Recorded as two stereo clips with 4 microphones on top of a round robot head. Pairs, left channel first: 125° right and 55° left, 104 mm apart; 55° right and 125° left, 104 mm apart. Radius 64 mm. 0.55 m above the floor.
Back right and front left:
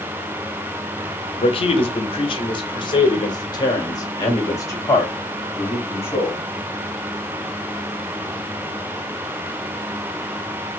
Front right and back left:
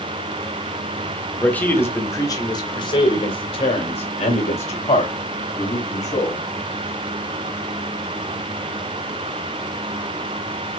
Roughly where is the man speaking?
Behind right.